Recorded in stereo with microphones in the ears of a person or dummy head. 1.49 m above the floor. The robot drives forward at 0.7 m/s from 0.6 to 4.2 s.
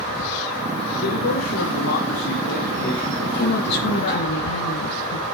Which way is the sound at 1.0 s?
85° left.